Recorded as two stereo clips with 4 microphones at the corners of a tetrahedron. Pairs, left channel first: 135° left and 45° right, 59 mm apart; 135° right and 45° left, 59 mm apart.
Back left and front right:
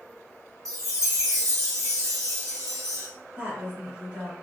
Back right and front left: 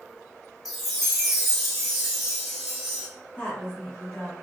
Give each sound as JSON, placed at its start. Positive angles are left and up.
{"t": 0.7, "sound": "a chime", "azimuth_deg": -50, "distance_m": 1.0}
{"t": 3.4, "sound": "a woman speaking", "azimuth_deg": -80, "distance_m": 1.0}